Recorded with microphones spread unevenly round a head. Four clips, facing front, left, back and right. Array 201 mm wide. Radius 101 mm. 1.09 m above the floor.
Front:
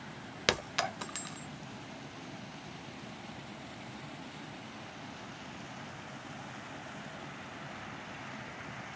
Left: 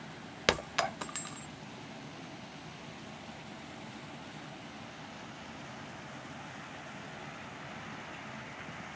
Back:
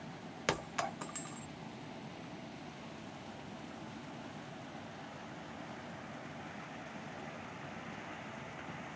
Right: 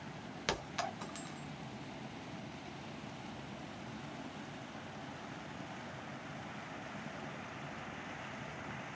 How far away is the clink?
About 0.8 m.